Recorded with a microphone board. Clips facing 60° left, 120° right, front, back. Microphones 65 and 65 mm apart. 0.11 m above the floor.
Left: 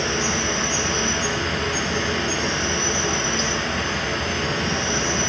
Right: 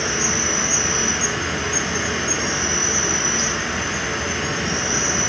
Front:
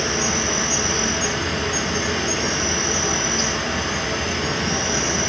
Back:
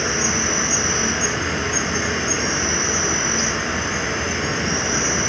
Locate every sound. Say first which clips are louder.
0.0 s an insect: even, back 1 dB; 170° right, 1.1 m